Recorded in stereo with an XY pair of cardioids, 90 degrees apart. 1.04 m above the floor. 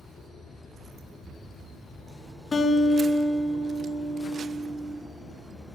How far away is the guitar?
About 0.7 m.